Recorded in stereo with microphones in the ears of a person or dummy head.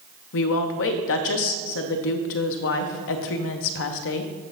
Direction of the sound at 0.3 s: 65° left (ahead or behind).